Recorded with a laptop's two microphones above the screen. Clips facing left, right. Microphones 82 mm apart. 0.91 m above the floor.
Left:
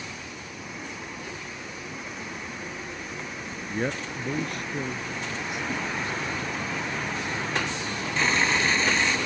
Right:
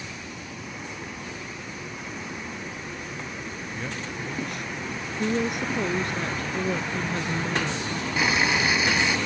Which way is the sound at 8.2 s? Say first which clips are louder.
Right 1 dB; 10° right (ahead or behind).